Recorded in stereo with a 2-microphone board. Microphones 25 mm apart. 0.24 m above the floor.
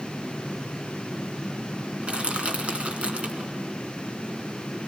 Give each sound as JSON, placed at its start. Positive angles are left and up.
{"t": 2.0, "sound": "crushing", "side_deg": -50, "distance_m": 3.0}